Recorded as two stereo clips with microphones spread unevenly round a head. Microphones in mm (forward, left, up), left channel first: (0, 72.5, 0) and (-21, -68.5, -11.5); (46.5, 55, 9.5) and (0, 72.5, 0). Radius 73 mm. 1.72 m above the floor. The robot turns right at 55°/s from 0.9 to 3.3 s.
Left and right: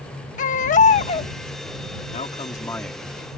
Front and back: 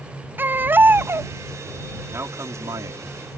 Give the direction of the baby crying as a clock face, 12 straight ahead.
8 o'clock.